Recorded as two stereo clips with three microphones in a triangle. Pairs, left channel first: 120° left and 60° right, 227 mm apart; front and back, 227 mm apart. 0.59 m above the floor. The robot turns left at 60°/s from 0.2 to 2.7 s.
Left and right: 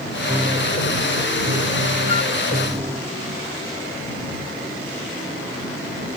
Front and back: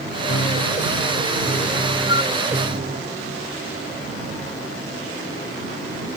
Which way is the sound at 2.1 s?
110° right.